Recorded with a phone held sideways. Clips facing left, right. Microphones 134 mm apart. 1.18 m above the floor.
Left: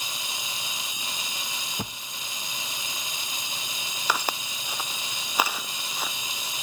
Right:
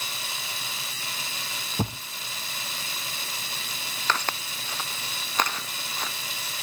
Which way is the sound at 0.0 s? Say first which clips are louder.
Even; 15° left (ahead or behind).